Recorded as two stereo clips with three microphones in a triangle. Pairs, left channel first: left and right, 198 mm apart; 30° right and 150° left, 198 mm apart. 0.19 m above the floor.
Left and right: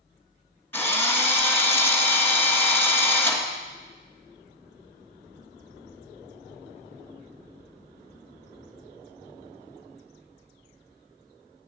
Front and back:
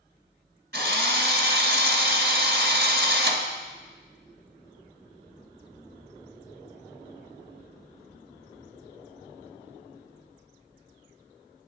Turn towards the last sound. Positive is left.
turn(degrees=165)